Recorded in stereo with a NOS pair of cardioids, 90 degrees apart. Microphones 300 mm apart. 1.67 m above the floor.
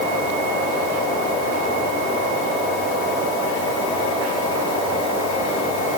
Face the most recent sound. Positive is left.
No sound to turn to.